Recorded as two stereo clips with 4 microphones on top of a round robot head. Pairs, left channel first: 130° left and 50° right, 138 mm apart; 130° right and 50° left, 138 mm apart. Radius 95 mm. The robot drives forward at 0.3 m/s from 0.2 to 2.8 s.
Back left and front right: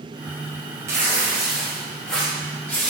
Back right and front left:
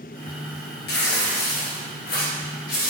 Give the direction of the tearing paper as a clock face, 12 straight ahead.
4 o'clock.